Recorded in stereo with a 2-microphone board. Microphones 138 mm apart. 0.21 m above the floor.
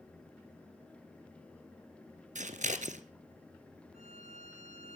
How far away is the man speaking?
No man speaking in this recording.